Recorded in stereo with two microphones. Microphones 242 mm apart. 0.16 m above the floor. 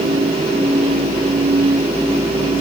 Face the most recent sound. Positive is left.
No sound to turn to.